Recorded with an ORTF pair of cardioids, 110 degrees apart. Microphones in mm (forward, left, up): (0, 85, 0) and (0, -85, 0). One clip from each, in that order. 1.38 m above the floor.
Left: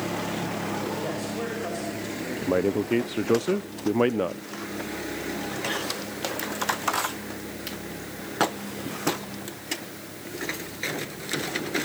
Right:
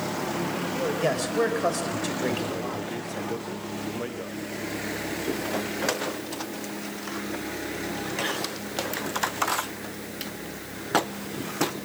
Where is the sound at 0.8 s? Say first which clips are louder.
Right 5 dB; 55° right, 7.5 m; by 3.3 s 70° right, 7 m.